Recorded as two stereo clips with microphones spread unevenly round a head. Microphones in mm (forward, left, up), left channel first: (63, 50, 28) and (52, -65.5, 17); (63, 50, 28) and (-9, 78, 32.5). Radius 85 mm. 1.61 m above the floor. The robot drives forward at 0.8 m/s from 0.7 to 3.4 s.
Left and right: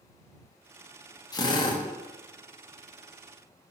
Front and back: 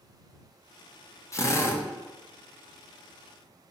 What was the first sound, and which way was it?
A drill, 30° left.